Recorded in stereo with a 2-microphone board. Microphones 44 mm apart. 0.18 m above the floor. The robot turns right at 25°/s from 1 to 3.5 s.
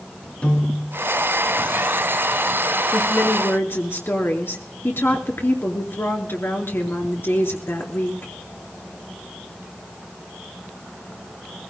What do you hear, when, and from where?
0.4 s a piano: 30° left (ahead or behind), 1.9 m
2.9 s a woman speaking: 60° left (ahead or behind), 3 m; by 8.3 s 65° left (ahead or behind), 3 m